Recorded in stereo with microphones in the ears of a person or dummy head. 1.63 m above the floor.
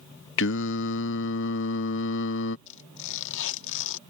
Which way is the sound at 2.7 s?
70° left (ahead or behind).